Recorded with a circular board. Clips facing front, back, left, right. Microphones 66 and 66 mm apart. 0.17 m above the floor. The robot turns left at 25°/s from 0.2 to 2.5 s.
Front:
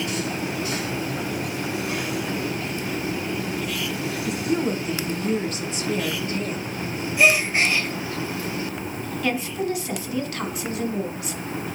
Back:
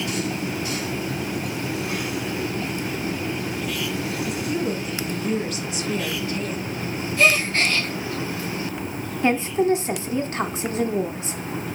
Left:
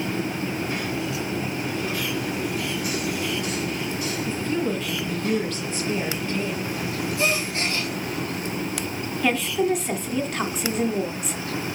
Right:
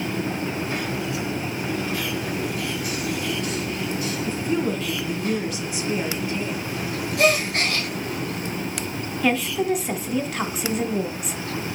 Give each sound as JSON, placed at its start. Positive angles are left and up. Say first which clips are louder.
{"t": 4.3, "sound": "a woman speaking", "louder": "front 4 dB, right 2 dB", "azimuth_deg": -25, "distance_m": 2.0}
{"t": 7.2, "sound": "a gasp", "louder": "front 1 dB, right 7 dB", "azimuth_deg": -75, "distance_m": 1.7}
{"t": 9.2, "sound": "a woman speaking", "louder": "back 6 dB, even", "azimuth_deg": -175, "distance_m": 1.1}